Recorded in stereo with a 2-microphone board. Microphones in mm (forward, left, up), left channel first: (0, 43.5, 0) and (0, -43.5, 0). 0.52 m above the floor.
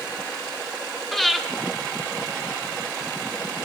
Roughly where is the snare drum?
I don't hear a snare drum.